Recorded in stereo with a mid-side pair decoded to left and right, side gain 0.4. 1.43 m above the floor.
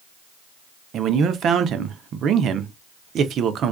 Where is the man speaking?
70° right, 0.5 m.